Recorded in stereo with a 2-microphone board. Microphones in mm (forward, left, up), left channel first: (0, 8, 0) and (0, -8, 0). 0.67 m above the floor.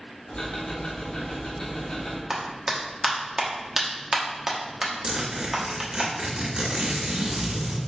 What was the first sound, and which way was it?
Ticking, 65° left (ahead or behind).